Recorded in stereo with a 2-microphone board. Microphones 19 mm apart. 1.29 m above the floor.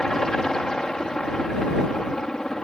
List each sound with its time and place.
0.0 s a helicopter: 40° left (ahead or behind)